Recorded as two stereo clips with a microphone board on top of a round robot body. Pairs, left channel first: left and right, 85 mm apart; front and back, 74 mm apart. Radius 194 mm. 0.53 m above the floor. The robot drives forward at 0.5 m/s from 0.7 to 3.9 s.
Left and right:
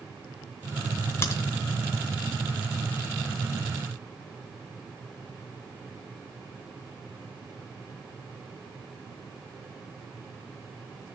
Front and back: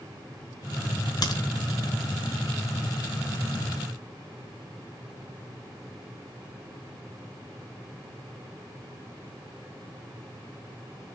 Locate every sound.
1.2 s a crack: 30° left, 3 m